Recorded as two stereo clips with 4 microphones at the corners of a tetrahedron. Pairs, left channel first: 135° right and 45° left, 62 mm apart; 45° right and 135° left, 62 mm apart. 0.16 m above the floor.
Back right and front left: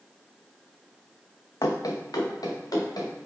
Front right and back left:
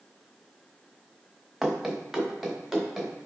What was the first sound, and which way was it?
Running footsteps, 135° right.